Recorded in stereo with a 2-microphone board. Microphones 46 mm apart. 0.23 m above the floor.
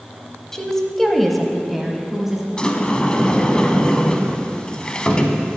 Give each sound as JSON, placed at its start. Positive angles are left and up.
{"t": 0.5, "sound": "a woman speaking", "side_deg": 10, "distance_m": 1.0}
{"t": 2.6, "sound": "a sliding door", "side_deg": 20, "distance_m": 0.8}